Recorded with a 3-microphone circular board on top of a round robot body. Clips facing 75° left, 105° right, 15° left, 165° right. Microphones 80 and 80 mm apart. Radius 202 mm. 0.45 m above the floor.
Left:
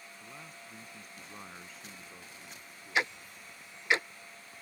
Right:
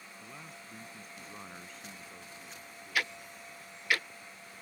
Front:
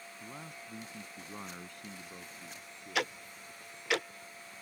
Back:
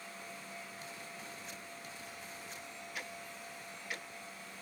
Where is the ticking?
5° left.